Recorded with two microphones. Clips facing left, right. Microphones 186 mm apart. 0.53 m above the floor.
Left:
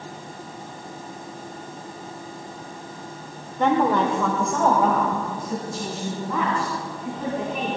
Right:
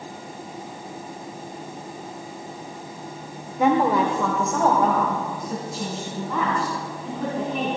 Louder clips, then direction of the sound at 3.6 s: Right 1 dB; 10° right (ahead or behind).